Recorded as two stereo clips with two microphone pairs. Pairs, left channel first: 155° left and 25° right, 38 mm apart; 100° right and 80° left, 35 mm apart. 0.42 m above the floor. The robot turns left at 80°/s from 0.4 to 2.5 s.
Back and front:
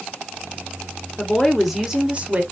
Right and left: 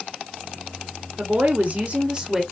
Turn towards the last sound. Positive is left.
turn(degrees=-5)